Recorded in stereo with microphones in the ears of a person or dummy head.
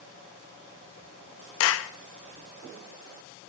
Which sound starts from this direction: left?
A clap, at 1.6 s.